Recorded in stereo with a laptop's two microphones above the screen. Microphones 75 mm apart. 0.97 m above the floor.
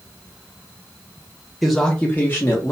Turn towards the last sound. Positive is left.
turn(degrees=40)  # may be behind; listen again after turning